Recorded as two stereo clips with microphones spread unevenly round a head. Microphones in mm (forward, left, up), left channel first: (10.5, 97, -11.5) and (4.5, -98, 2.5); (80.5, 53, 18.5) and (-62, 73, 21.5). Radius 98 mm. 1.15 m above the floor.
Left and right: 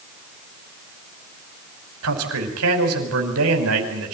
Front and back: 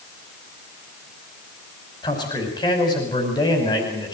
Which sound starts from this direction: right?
A man speaking, at 2.0 s.